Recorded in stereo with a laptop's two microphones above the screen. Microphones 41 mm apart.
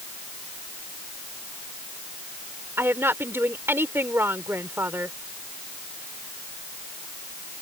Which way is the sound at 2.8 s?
80° right.